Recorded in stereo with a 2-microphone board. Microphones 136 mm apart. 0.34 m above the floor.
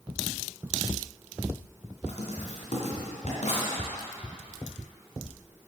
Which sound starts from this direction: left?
Writing, at 2.1 s.